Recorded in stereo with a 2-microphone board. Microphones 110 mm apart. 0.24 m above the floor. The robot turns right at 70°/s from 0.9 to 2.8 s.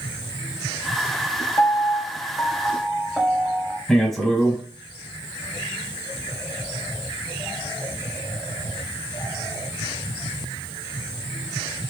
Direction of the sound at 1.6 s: 30° left (ahead or behind).